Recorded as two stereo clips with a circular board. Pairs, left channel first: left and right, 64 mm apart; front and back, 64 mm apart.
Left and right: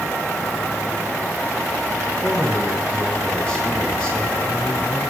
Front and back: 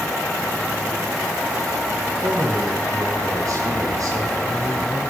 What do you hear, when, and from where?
2.2 s a man speaking: 150° right, 3 m